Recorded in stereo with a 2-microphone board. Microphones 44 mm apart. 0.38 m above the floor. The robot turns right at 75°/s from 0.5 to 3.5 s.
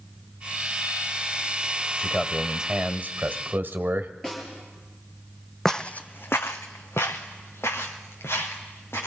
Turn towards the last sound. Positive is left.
turn(degrees=75)  # may be behind; listen again after turning